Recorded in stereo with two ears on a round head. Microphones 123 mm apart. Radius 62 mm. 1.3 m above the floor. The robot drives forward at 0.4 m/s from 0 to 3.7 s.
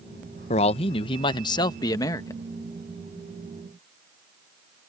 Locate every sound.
0.5 s a man speaking: 50° left (ahead or behind); by 2.5 s 25° left (ahead or behind)